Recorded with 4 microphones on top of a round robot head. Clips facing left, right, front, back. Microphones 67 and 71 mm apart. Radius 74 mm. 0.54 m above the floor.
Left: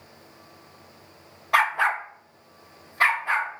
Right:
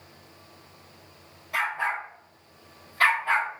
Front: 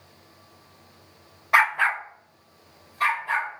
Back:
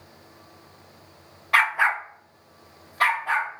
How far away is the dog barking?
About 0.5 m.